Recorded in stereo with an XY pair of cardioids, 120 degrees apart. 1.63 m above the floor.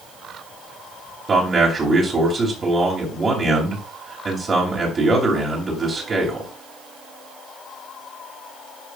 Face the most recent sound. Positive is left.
turn(degrees=-35)